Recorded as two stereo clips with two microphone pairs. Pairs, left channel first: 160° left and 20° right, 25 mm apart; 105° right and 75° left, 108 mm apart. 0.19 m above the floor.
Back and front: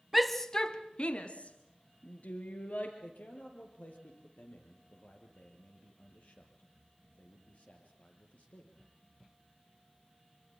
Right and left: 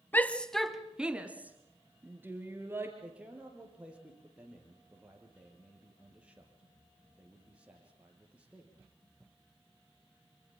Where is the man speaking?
155° left, 5.5 m.